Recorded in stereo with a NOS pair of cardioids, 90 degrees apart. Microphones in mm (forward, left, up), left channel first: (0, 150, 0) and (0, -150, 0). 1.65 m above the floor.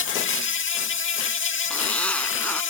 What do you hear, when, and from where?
0.0 s an insect: 40° left
1.7 s a zipper: 5° left